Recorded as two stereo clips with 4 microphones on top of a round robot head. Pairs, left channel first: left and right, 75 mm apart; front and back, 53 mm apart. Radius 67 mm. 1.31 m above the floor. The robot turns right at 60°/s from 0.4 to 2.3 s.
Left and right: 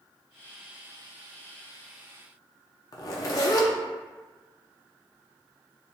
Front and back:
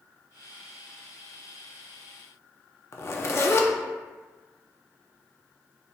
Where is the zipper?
40° left, 0.5 m.